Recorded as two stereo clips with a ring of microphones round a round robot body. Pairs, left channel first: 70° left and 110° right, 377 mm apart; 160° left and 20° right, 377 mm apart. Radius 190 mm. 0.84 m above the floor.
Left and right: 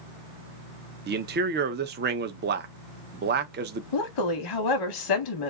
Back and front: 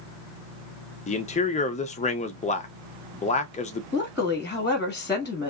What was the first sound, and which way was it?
A man speaking, 150° right.